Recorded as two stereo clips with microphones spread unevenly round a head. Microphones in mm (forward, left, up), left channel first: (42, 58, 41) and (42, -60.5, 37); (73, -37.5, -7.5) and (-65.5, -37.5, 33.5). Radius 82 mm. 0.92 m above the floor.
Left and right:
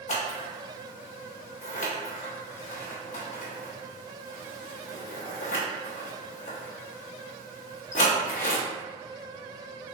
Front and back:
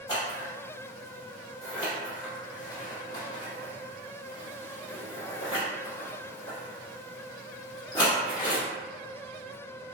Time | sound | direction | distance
0.1 | scissors | 65° left | 1.0 m